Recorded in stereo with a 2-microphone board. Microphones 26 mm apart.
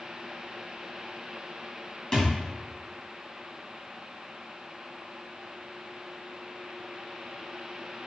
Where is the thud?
25° left (ahead or behind), 2.5 m.